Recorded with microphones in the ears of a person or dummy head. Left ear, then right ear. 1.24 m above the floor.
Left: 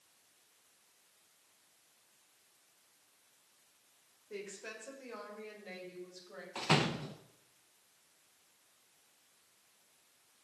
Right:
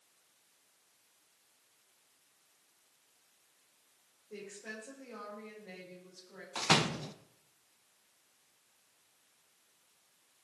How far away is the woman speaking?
About 5 m.